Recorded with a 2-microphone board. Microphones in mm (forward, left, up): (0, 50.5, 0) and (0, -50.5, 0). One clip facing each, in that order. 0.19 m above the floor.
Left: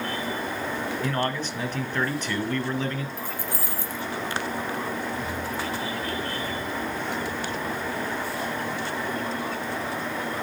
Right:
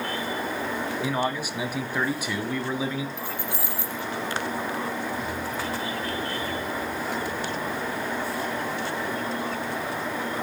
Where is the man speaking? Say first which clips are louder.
Even; 10° right (ahead or behind), 1.3 m.